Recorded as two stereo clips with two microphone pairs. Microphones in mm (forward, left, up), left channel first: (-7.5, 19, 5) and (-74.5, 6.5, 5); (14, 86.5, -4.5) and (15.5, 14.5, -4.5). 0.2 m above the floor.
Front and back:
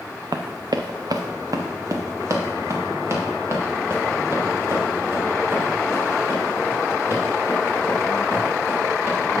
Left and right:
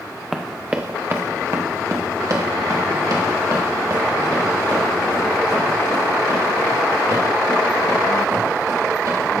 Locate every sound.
0.3 s running footsteps: straight behind, 0.9 m; by 9.2 s 110° right, 7 m